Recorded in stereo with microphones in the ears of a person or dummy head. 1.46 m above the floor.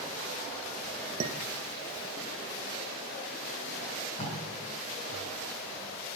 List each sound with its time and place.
1.2 s dishes clattering: 40° right (ahead or behind), 1.0 m
3.8 s tape being pulled: 35° left (ahead or behind), 5 m